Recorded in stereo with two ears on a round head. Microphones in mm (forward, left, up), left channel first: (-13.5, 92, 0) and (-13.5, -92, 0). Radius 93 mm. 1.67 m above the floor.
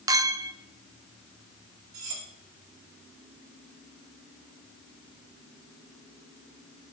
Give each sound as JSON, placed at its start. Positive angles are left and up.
{"t": 0.1, "sound": "a clink", "side_deg": -15, "distance_m": 0.5}
{"t": 1.9, "sound": "cutlery clinking", "side_deg": -75, "distance_m": 3.0}